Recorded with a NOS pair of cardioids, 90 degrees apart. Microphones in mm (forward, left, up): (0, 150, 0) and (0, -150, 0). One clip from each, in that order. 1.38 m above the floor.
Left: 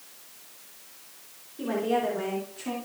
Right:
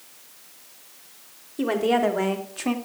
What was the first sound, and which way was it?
A woman speaking, 70° right.